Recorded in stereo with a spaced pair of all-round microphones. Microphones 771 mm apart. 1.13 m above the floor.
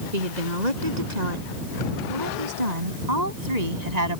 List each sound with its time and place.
0.1 s a woman speaking: 60° right (ahead or behind)